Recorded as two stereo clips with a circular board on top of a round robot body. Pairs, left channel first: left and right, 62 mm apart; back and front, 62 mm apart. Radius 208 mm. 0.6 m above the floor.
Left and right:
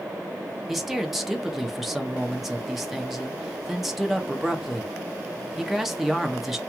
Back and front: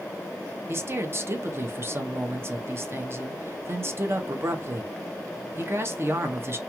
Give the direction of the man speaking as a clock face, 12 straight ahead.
12 o'clock.